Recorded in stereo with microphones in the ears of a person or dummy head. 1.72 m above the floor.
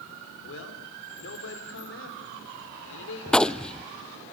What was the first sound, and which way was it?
A man speaking, 85° left.